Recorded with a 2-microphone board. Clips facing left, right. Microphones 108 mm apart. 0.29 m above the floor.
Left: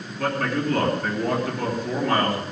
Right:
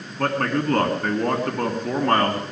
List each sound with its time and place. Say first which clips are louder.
0.2 s a man speaking: right 2 dB; 50° right (ahead or behind), 3 m